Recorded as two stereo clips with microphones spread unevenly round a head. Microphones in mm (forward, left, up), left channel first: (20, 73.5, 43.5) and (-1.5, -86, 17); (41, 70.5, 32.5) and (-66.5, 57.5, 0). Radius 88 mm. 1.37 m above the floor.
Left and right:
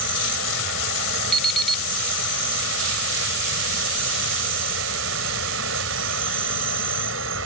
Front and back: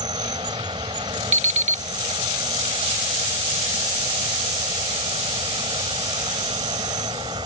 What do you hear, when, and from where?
0.0 s an insect: 100° right
1.3 s an alarm clock: 165° left